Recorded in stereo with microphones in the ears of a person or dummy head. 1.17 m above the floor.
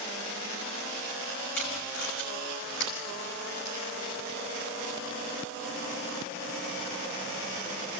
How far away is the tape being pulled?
About 4.5 m.